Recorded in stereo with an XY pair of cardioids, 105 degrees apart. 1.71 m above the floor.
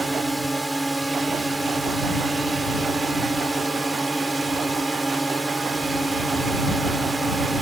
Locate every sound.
0.0 s a drone: 10° right